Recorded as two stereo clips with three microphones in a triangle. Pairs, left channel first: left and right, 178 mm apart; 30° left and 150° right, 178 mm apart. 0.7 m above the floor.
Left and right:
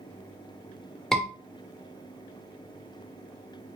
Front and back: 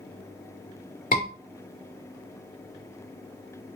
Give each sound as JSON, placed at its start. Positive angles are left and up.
{"t": 1.1, "sound": "a scream", "azimuth_deg": 5, "distance_m": 2.0}